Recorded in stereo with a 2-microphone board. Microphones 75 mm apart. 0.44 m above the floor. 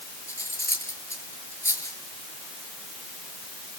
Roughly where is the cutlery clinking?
Left.